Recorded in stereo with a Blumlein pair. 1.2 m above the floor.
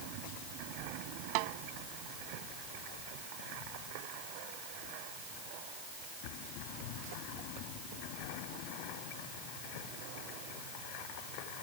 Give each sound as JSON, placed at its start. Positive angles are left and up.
{"t": 1.4, "sound": "a snare drum", "azimuth_deg": -45}